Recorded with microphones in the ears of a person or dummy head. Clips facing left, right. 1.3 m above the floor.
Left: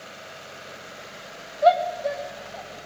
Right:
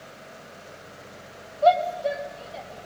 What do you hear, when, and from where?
1.6 s a shout: 25° left (ahead or behind), 1.0 m; by 2.7 s 45° right (ahead or behind), 1.2 m